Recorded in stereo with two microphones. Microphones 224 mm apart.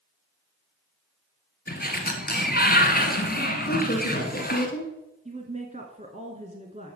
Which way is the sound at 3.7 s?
40° left (ahead or behind).